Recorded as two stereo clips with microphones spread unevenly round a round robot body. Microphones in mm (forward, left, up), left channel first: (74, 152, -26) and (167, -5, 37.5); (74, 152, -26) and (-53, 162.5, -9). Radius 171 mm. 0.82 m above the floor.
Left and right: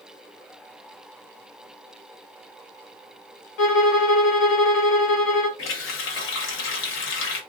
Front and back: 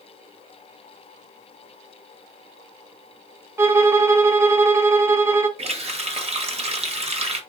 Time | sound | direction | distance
3.6 | a violin | 110° left | 0.7 m
5.6 | a running tap | 130° left | 0.9 m